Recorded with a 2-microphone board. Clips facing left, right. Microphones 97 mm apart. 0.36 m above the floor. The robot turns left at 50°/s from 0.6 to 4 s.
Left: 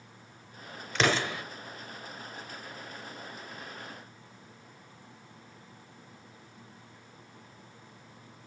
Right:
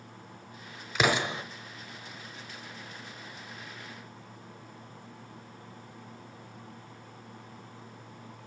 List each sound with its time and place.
0.9 s an explosion: 5° right (ahead or behind), 0.8 m; by 1.4 s 25° right (ahead or behind), 0.8 m